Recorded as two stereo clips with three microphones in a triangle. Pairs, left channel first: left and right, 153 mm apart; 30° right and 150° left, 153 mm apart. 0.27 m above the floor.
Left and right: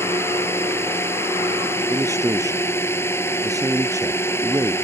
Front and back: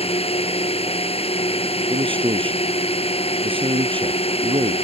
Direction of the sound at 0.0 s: 15° left.